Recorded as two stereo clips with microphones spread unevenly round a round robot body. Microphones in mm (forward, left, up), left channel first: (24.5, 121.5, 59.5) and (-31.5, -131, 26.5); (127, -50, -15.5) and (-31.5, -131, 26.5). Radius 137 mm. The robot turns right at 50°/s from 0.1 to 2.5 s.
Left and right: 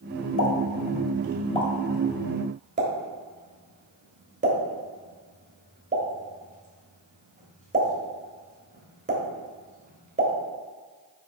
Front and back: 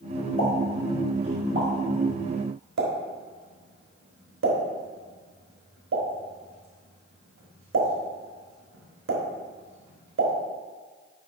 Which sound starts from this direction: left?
A pop, at 0.4 s.